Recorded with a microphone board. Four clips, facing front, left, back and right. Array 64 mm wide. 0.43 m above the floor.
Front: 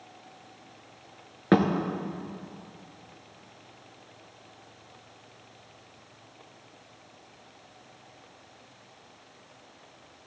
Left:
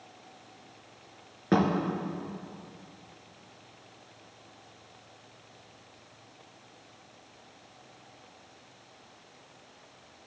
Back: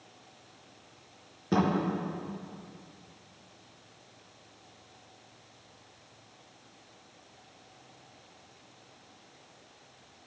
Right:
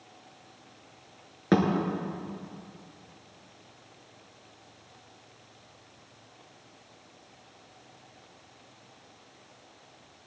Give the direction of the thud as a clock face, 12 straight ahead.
12 o'clock.